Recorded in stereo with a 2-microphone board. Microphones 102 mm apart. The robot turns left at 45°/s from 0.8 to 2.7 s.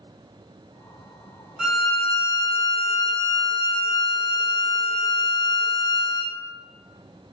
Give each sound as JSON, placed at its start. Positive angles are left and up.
{"t": 1.6, "sound": "a violin", "azimuth_deg": -175, "distance_m": 0.6}